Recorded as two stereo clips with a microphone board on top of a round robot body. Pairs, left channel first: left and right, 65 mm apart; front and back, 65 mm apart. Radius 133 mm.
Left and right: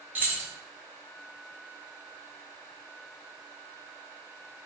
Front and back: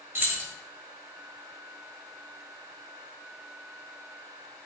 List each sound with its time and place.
0.1 s keys jangling: 145° right, 0.9 m